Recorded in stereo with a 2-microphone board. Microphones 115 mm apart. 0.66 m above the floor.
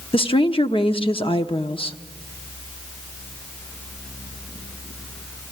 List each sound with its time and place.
0.1 s a woman speaking: 55° left (ahead or behind), 1.0 m